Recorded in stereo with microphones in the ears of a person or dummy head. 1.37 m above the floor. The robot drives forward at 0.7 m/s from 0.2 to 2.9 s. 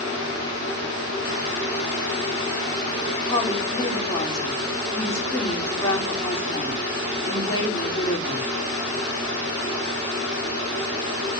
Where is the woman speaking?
20° left (ahead or behind), 4 m.